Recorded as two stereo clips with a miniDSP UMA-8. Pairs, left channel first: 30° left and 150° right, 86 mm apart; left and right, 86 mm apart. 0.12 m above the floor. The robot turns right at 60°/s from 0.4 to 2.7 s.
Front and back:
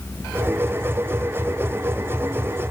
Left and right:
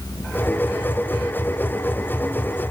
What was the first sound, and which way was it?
Only background noise.